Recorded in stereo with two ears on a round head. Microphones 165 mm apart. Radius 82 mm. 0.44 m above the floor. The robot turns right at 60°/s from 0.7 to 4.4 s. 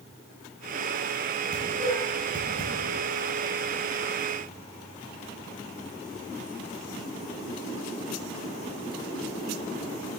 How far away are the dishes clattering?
About 5 m.